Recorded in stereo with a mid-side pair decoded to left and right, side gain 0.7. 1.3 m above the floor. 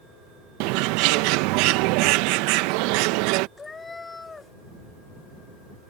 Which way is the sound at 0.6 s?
70° right.